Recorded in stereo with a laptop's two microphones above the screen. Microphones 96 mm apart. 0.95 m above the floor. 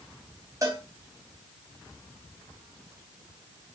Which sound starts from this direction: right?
A cowbell, at 0.6 s.